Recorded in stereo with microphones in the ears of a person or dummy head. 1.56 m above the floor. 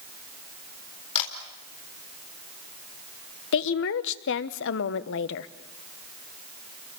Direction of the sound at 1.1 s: 40° left (ahead or behind).